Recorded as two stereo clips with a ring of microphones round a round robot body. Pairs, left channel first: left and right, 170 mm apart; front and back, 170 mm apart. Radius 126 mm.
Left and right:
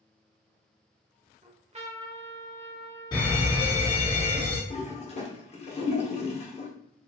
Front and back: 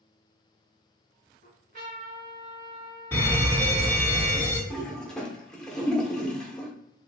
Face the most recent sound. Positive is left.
turn(degrees=85)